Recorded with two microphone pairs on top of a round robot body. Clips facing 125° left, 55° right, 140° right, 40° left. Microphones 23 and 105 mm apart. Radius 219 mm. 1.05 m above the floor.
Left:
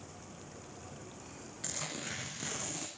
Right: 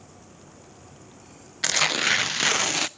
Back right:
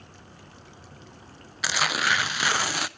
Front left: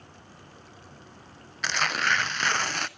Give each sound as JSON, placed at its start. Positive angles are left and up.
{"t": 1.6, "sound": "tearing paper", "azimuth_deg": -55, "distance_m": 0.6}